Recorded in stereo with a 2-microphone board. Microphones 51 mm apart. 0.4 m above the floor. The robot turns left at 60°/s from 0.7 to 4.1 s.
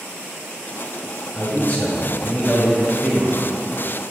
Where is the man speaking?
60° left, 1.1 m; by 3.4 s 65° right, 1.1 m.